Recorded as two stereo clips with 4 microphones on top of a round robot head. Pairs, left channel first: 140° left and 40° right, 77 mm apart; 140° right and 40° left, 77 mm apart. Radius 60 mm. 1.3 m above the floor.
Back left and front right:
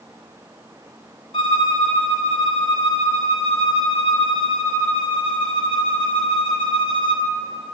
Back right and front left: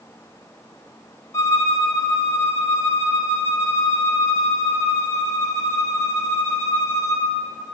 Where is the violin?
165° left, 0.8 m.